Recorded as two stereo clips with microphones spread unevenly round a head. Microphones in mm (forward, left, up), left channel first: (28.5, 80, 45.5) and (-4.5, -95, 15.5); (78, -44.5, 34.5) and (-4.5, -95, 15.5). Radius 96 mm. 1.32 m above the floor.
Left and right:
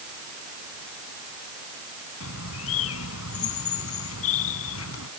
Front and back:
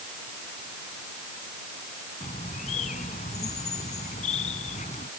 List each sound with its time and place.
2.2 s a bird: 75° left